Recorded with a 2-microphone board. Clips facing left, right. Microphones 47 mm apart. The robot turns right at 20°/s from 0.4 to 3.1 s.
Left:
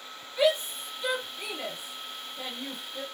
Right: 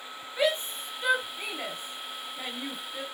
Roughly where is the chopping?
I don't hear chopping.